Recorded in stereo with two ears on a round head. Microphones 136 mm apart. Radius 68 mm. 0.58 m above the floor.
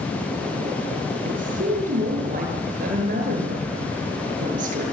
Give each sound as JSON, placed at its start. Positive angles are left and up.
{"t": 1.2, "sound": "a woman speaking", "side_deg": -60, "distance_m": 9.0}